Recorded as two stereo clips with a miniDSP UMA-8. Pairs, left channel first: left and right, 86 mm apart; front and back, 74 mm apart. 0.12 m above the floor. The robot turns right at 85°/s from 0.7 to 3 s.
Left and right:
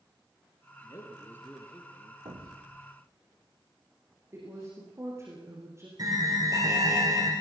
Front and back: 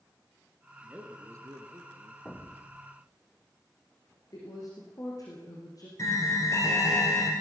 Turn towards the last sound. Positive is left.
turn(degrees=-45)